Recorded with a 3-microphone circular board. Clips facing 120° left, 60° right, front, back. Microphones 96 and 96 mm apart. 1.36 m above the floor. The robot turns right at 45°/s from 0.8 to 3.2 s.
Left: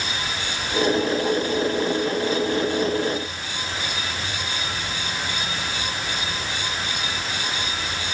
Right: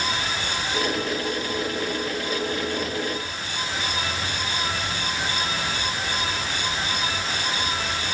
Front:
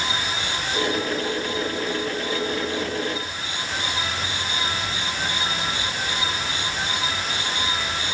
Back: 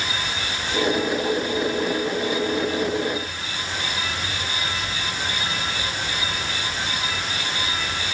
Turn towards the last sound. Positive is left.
No sound to turn to.